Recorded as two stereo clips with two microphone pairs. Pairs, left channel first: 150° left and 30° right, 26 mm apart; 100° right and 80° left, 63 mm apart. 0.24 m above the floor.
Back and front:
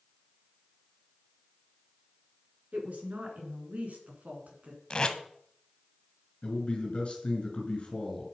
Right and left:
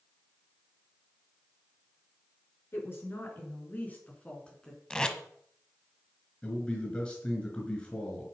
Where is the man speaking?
165° right, 2.5 m.